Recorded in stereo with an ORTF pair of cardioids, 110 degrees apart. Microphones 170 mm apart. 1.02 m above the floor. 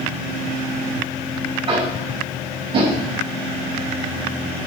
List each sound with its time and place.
1.7 s tapping: 35° right, 5.5 m